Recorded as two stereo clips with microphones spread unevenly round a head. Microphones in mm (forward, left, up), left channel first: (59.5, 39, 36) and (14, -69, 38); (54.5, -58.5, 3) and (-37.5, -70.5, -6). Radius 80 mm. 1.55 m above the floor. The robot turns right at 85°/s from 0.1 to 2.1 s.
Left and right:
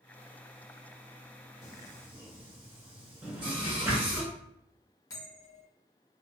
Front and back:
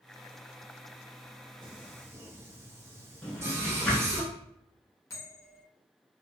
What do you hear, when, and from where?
1.6 s singing: 165° right, 0.8 m; by 4.2 s 120° right, 0.8 m
3.2 s a drawer: 50° right, 0.8 m
5.1 s a bell: 25° left, 0.8 m